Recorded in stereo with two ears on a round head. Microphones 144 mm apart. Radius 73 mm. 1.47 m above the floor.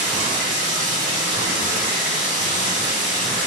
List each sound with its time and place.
0.0 s running water: 45° right (ahead or behind), 2 m